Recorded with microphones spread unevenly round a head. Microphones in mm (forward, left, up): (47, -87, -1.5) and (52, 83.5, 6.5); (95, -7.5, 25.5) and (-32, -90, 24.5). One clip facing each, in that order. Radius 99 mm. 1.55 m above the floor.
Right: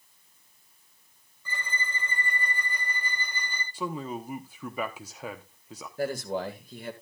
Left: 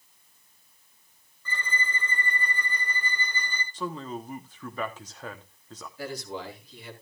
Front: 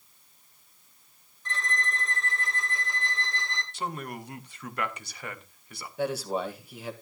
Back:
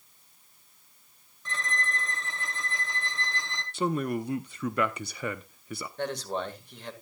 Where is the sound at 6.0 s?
50° right, 2 m.